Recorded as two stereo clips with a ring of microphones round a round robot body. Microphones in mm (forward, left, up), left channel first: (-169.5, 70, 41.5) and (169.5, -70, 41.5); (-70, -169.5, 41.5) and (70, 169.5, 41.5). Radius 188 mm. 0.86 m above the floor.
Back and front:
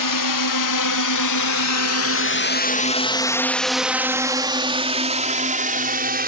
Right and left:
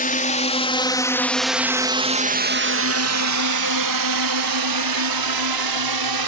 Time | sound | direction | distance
0.0 | a drone | straight behind | ?